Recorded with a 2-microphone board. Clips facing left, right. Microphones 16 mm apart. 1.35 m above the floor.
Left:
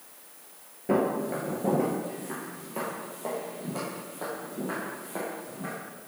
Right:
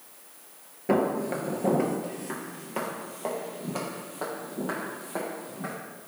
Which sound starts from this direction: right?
Footsteps, at 0.9 s.